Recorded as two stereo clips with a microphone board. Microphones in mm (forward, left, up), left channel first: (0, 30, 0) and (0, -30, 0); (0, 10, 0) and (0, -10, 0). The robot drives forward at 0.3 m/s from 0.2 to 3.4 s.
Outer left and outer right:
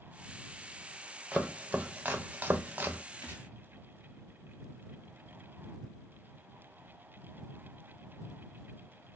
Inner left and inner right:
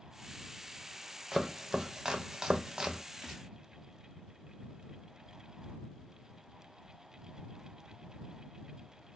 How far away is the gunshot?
About 2.5 m.